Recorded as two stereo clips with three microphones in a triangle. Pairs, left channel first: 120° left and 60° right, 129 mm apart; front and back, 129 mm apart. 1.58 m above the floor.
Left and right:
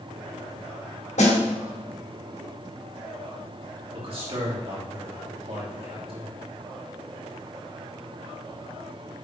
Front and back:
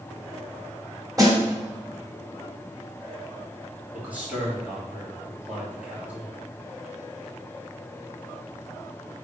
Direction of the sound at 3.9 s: 100° right.